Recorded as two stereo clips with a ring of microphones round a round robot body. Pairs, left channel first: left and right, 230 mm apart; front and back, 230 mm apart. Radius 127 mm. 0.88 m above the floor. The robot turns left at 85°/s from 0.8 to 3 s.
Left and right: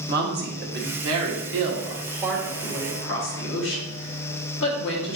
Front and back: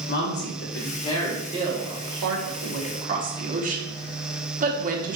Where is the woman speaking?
45° right, 1.3 m; by 5.2 s 125° left, 1.3 m.